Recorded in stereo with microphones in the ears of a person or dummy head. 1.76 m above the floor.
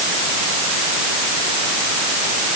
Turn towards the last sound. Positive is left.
No sound to turn to.